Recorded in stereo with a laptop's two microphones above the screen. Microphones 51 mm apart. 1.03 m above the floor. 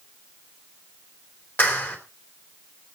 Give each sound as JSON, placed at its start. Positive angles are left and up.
{"t": 1.6, "sound": "a clap", "side_deg": 40, "distance_m": 3.0}